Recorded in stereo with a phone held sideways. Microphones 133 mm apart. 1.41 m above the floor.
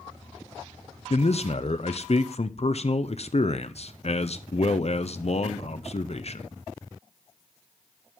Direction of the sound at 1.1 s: 50° left (ahead or behind).